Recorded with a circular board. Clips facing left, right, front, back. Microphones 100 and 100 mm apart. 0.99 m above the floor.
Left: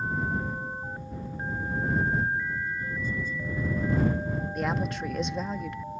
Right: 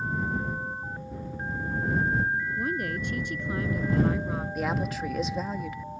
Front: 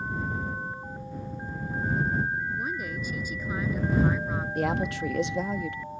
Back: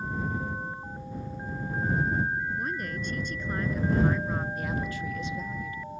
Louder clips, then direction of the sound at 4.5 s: Even, front 5 dB; straight ahead.